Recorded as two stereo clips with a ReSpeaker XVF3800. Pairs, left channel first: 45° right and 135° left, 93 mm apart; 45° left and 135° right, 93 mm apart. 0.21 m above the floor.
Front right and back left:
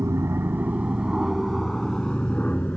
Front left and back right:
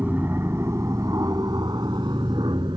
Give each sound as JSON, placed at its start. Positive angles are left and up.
{"t": 0.0, "sound": "an aircraft", "azimuth_deg": 165}